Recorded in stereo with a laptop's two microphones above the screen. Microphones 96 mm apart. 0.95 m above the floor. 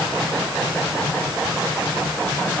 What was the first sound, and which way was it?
Only background noise.